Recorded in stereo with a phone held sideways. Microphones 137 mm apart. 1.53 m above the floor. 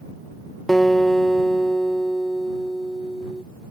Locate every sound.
0.7 s a guitar: centre (ahead or behind)